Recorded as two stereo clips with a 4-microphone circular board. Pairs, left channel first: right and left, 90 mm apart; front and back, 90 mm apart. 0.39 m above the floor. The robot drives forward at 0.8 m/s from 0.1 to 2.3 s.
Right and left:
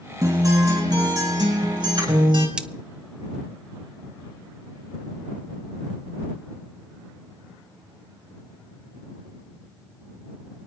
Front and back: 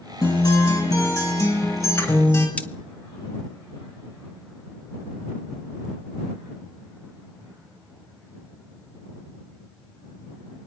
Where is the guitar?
40° left, 4.5 m; by 2.5 s 55° left, 3.5 m.